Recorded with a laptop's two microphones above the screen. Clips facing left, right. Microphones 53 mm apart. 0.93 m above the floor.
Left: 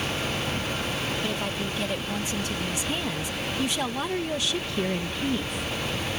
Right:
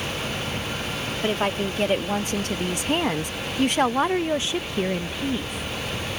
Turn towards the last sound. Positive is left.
turn(degrees=5)  # may be behind; listen again after turning